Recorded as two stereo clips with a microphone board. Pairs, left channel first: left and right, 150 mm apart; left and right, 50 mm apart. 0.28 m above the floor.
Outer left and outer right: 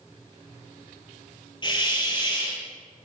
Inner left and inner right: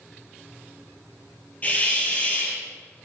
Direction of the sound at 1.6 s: 30° left (ahead or behind).